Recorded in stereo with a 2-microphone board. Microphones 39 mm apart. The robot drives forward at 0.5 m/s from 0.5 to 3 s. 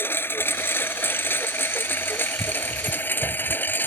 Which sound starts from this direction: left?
A lawn mower, at 0.0 s.